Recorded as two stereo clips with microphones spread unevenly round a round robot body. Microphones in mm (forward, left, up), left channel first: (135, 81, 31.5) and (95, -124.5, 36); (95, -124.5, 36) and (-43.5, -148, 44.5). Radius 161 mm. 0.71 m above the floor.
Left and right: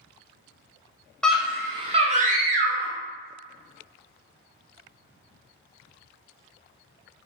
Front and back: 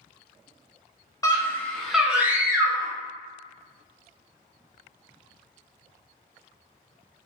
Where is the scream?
Straight ahead, 0.7 m; by 2.9 s 105° right, 1.1 m.